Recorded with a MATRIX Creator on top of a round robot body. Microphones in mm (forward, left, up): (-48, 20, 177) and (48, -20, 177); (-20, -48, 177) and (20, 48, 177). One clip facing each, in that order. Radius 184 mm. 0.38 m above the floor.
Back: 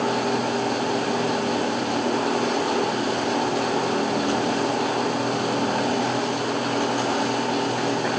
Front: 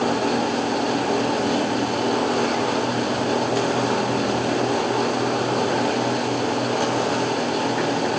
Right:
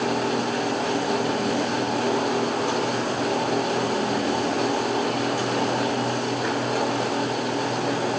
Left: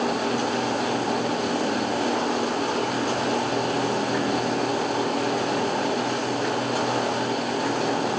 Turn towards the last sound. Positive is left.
No sound to turn to.